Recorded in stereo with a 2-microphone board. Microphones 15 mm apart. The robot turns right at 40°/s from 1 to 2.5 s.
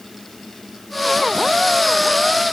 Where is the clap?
I don't hear a clap.